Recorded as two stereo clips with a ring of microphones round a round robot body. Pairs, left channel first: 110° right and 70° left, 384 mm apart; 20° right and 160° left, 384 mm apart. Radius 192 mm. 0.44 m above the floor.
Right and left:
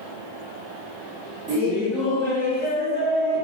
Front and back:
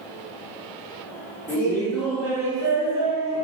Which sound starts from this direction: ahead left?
Laughter, at 1.5 s.